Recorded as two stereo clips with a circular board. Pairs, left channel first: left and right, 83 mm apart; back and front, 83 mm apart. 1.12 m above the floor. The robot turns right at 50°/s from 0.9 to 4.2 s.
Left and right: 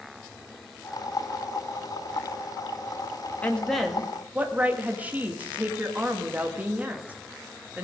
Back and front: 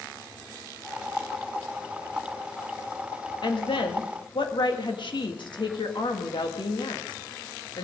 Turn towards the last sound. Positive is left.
turn(degrees=-160)